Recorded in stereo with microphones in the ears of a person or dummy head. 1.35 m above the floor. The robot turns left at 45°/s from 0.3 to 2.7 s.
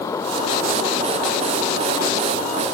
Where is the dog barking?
I don't hear a dog barking.